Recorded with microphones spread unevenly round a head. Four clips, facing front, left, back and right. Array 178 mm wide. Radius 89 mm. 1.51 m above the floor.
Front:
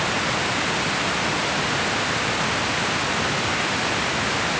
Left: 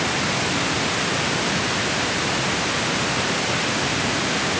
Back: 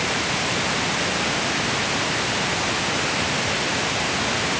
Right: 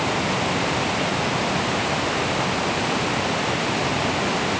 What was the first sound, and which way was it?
Only background noise.